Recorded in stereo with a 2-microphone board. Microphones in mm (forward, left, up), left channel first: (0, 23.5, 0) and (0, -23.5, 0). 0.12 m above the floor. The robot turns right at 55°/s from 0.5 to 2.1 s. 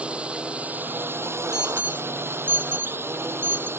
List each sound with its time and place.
0.0 s a drone: 155° right; by 3.8 s 65° right
1.5 s an alarm: 15° right (ahead or behind); by 3.7 s 45° right (ahead or behind)